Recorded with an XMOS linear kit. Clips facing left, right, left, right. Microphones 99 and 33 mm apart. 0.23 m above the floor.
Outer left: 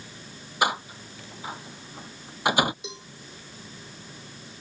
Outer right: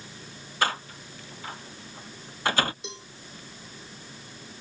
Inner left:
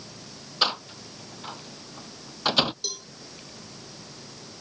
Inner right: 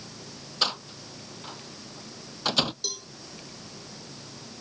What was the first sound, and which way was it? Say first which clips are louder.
A door slam: outer left 2 dB, inner left 3 dB; 15° left (ahead or behind).